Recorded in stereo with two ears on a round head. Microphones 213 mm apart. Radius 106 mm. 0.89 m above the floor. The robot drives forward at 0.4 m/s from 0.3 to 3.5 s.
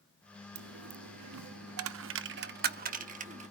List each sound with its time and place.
0.6 s a dropped coin: 60° right (ahead or behind), 0.6 m; by 3.5 s 30° right (ahead or behind), 1.1 m